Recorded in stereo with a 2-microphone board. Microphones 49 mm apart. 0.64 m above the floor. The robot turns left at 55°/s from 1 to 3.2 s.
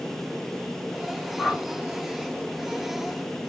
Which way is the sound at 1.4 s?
20° left (ahead or behind).